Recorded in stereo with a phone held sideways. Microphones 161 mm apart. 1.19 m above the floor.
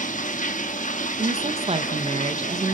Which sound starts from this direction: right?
A woman speaking, at 1.2 s.